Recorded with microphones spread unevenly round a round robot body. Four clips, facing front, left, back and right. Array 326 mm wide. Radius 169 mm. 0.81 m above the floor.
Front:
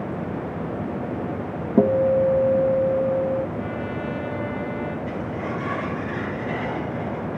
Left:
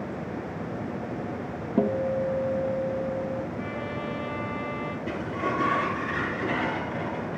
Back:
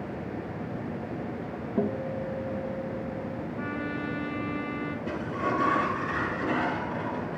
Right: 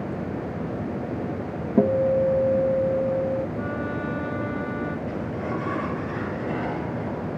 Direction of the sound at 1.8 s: 5° right.